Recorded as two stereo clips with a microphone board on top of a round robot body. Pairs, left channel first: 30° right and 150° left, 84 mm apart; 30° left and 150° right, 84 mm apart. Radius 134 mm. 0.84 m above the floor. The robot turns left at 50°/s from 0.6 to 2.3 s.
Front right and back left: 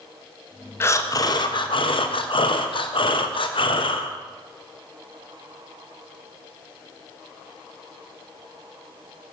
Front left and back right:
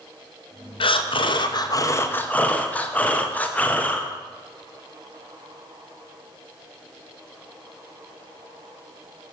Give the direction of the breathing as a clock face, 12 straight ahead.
11 o'clock.